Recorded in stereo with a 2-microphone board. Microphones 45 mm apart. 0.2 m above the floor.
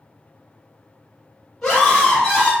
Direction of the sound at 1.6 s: 5° left (ahead or behind).